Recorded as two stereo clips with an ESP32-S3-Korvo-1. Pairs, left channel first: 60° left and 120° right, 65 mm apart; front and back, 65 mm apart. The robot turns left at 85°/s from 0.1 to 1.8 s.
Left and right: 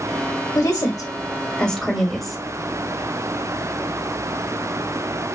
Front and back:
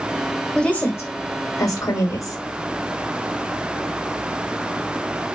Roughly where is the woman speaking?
Left.